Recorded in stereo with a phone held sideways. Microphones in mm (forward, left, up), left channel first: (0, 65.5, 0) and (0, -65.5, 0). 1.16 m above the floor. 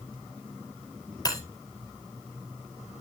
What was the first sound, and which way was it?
Breaking glass, 30° left (ahead or behind).